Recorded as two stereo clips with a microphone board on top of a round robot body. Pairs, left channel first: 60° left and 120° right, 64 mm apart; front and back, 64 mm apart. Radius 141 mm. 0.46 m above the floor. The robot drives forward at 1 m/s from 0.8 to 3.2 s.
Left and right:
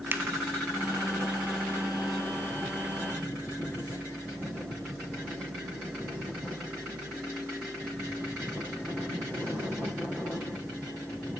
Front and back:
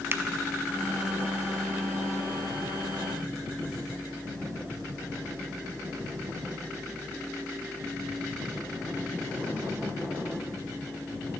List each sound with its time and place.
0.1 s a finger snap: 150° right, 0.6 m